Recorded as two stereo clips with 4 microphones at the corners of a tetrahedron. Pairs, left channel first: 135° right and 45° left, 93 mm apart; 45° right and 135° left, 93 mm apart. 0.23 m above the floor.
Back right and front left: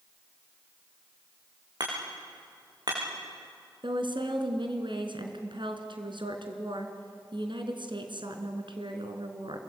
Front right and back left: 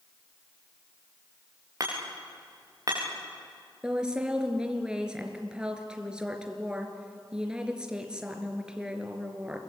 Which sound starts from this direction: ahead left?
A woman speaking, at 3.8 s.